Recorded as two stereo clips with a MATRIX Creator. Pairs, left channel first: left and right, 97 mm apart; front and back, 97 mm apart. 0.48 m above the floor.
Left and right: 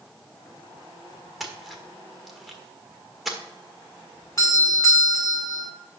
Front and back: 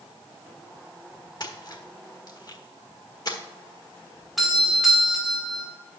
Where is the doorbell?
90° left, 1.8 m.